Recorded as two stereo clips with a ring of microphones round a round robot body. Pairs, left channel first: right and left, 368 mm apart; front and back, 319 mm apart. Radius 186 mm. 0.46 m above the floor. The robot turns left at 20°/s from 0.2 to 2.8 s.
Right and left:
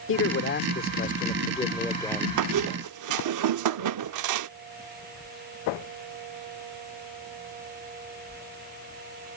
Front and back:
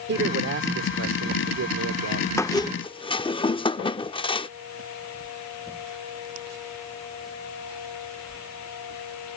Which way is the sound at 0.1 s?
135° right.